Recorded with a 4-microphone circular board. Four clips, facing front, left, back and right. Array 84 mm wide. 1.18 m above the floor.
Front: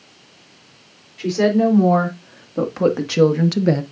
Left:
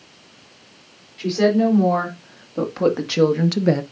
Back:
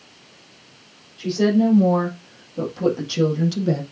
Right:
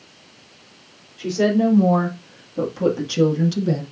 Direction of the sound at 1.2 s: 25° left.